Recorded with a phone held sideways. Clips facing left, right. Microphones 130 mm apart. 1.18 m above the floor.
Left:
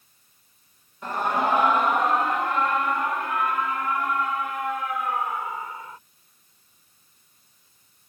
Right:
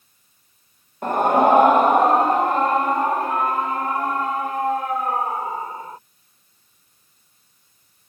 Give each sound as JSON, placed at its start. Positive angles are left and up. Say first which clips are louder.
{"t": 1.0, "sound": "a scream", "louder": "right 8 dB", "side_deg": -55}